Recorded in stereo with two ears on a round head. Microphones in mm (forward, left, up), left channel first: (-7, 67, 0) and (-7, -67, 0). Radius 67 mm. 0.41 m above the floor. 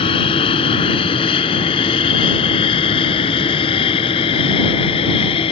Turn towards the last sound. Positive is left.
turn(degrees=35)  # may be behind; listen again after turning